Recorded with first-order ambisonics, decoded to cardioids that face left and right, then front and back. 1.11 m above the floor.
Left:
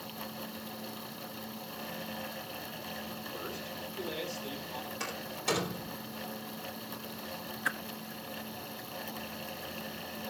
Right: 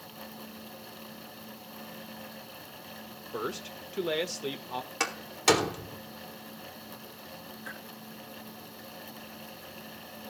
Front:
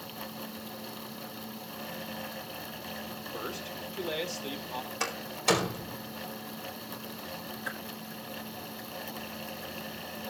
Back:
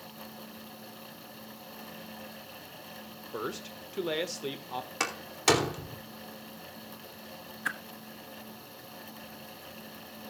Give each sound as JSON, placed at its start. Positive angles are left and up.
{"t": 3.3, "sound": "a man speaking", "azimuth_deg": -130, "distance_m": 1.2}
{"t": 5.0, "sound": "a door slam", "azimuth_deg": -135, "distance_m": 2.5}
{"t": 7.7, "sound": "a whoosh", "azimuth_deg": 135, "distance_m": 1.1}